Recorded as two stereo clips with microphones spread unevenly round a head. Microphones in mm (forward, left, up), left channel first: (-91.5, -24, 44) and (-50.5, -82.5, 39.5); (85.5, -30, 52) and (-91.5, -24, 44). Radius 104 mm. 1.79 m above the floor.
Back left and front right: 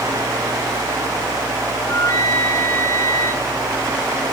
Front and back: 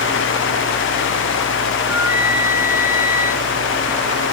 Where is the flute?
100° left, 0.9 m.